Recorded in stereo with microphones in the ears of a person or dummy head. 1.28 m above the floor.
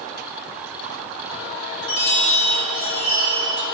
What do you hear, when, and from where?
1.8 s a chime: 60° left (ahead or behind), 4 m